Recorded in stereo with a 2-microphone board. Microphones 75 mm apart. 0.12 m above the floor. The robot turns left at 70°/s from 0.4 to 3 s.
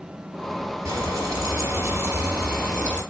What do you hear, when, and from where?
0.8 s frying: 60° right, 2.5 m; by 3.0 s 150° left, 2.5 m